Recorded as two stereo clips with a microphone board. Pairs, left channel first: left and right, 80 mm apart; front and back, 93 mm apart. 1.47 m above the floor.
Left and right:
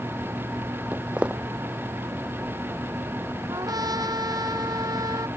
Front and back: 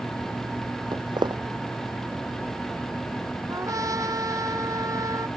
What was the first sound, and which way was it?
Footsteps, 165° right.